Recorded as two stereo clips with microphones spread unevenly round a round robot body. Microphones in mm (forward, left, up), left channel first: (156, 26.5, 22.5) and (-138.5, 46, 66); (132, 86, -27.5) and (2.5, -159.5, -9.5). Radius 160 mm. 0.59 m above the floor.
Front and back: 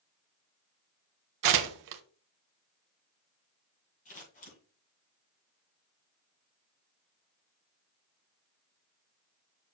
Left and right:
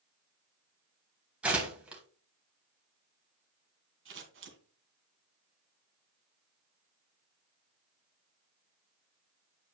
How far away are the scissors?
About 2.5 m.